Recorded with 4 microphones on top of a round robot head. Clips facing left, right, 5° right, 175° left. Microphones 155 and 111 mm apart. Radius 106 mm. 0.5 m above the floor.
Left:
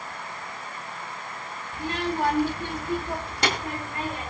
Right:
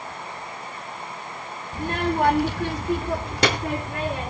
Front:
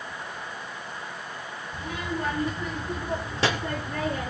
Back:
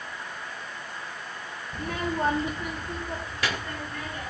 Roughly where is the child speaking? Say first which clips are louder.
Right 4 dB, back 3 dB; behind right.